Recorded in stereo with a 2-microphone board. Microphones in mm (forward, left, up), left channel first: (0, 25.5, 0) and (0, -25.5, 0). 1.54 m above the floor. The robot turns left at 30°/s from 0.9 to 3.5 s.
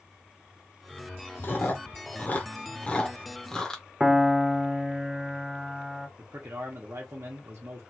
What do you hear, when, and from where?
1.4 s chewing: 45° left (ahead or behind), 0.8 m; by 3.8 s 15° left (ahead or behind), 0.8 m
4.0 s a piano: 10° right (ahead or behind), 0.5 m
6.2 s a man speaking: 60° right (ahead or behind), 0.9 m